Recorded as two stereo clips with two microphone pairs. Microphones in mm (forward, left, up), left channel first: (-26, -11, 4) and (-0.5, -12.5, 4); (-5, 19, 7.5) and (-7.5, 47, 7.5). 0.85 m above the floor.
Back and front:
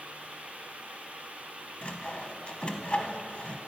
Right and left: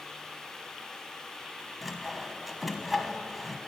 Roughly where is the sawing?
Behind.